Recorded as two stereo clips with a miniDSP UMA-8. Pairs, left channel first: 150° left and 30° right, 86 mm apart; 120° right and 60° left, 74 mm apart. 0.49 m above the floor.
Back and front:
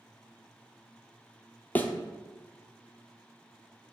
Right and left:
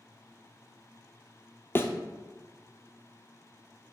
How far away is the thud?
About 0.6 m.